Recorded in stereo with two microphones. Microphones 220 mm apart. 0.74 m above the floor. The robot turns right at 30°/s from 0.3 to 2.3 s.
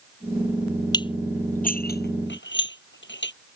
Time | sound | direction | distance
0.9 | dishes clattering | 20° left (ahead or behind) | ?